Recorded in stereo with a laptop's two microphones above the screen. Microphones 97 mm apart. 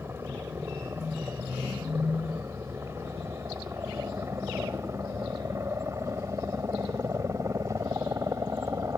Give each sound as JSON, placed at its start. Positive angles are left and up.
{"t": 0.0, "sound": "a helicopter", "side_deg": -25}